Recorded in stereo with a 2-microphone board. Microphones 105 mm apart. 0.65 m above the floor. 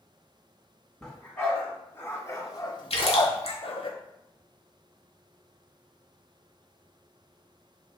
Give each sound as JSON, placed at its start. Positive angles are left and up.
{"t": 1.0, "sound": "a dog barking", "side_deg": 10, "distance_m": 1.6}
{"t": 2.9, "sound": "a splash", "side_deg": 65, "distance_m": 1.2}